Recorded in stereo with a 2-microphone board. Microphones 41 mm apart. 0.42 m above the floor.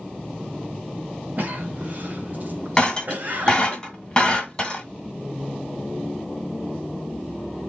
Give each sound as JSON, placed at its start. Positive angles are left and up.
{"t": 1.4, "sound": "a cough", "side_deg": -35, "distance_m": 1.9}
{"t": 2.8, "sound": "breaking glass", "side_deg": 20, "distance_m": 1.6}